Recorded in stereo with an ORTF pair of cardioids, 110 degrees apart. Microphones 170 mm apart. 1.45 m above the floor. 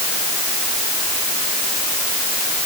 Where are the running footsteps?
No running footsteps in this recording.